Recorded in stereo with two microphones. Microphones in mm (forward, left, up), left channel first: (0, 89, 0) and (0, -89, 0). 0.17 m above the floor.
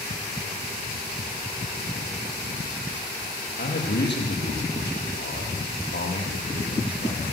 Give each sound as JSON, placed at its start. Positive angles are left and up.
{"t": 3.6, "sound": "a man speaking", "side_deg": 75, "distance_m": 6.0}